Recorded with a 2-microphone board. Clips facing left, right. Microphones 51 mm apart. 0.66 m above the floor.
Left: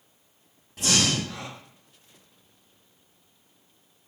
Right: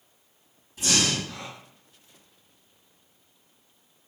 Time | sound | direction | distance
0.8 | breathing | 65° left (ahead or behind) | 1.8 m